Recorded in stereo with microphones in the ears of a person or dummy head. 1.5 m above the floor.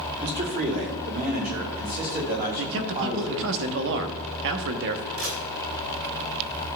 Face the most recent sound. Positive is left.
turn(degrees=-75)  # may be behind; listen again after turning